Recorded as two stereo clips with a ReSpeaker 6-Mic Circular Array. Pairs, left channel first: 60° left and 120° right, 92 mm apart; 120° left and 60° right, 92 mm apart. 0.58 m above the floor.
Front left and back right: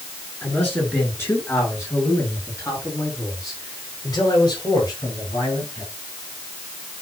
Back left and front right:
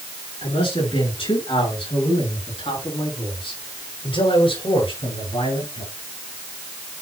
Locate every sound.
0.4 s a man speaking: 130° left, 7.5 m; by 5.9 s 105° left, 9 m